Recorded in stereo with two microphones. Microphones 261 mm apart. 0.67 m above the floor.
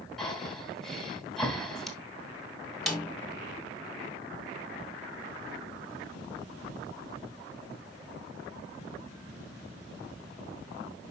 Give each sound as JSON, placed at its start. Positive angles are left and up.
{"t": 0.2, "sound": "breathing", "side_deg": 0, "distance_m": 2.5}
{"t": 2.9, "sound": "a snare drum", "side_deg": 0, "distance_m": 3.5}